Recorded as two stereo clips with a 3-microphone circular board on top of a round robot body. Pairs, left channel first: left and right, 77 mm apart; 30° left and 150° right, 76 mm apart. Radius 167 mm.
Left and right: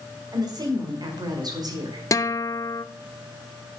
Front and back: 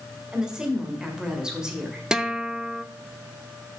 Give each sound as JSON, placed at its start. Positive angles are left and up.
{"t": 0.3, "sound": "a woman speaking", "azimuth_deg": -70, "distance_m": 2.0}
{"t": 2.1, "sound": "a guitar", "azimuth_deg": 130, "distance_m": 0.7}